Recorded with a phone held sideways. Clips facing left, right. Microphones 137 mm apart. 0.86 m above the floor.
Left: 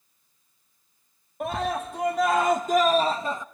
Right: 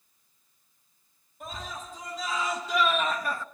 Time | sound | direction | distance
1.4 | a scream | 70° left (ahead or behind) | 1.6 m